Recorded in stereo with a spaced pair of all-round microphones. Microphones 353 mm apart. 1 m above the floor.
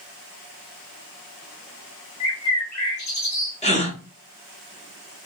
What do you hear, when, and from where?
2.2 s a bird: 50° left (ahead or behind), 0.8 m
3.6 s a gasp: 20° left (ahead or behind), 0.6 m